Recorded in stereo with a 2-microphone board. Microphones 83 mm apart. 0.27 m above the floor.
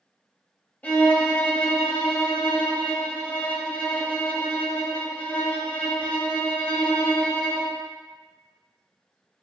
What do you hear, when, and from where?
0.8 s a violin: 20° left (ahead or behind), 0.7 m